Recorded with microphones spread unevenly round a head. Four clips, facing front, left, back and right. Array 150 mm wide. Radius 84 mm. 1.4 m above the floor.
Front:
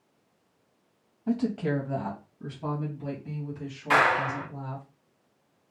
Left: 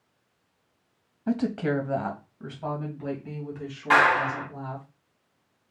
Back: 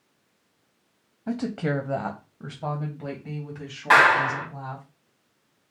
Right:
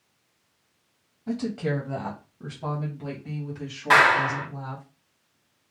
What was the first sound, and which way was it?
A woman speaking, 140° left.